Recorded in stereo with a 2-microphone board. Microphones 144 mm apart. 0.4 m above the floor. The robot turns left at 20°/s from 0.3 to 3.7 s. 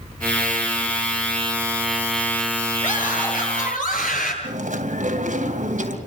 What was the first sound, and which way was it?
A scream, 60° left (ahead or behind).